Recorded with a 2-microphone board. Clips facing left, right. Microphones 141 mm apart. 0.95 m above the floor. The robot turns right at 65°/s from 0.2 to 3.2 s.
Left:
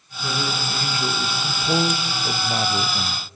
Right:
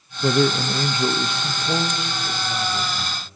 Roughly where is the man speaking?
Right.